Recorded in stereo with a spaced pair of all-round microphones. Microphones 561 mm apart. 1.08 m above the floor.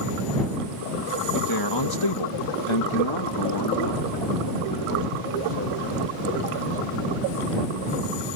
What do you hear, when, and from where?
1.3 s a man speaking: 35° left (ahead or behind); by 6.9 s 25° left (ahead or behind)